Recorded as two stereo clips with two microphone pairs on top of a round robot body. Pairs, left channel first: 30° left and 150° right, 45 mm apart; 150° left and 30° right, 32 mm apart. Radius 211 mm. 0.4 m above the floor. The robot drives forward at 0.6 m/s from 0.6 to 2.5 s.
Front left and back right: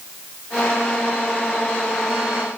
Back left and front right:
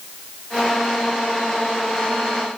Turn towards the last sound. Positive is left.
No sound to turn to.